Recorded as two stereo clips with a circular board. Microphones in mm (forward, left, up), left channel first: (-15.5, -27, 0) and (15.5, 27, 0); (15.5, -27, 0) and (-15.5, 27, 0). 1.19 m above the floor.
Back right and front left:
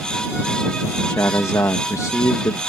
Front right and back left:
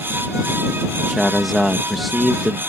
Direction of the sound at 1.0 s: 150° right.